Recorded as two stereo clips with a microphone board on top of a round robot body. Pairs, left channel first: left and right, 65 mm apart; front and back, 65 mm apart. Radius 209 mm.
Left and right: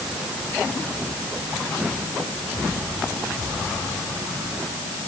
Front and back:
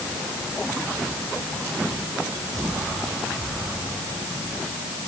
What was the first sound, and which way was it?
Only background noise.